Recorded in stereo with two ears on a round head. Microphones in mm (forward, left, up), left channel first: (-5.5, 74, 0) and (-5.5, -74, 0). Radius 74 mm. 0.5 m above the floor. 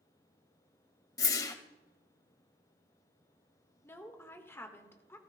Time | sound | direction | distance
1.2 | a whoosh | 20° left (ahead or behind) | 0.7 m
3.8 | a woman speaking | 15° left (ahead or behind) | 1.5 m